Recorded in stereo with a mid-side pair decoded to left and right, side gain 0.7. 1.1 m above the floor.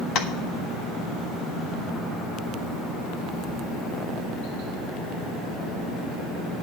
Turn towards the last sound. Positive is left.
turn(degrees=55)